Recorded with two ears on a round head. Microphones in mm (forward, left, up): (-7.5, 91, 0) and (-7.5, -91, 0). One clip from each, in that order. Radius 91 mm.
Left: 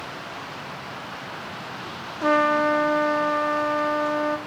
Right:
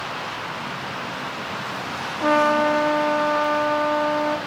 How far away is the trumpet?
About 0.6 m.